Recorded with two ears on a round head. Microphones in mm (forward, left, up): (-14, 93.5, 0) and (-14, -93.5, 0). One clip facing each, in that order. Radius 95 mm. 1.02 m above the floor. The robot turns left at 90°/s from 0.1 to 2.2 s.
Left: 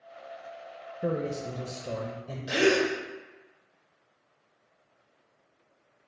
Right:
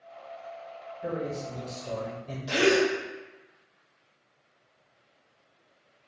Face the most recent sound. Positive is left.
turn(degrees=5)  # may be behind; listen again after turning